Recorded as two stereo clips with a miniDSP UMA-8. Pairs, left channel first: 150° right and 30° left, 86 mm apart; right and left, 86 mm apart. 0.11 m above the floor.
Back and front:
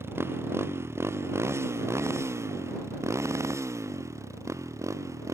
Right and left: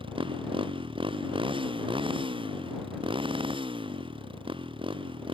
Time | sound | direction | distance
0.0 | a motorcycle | 90° left | ?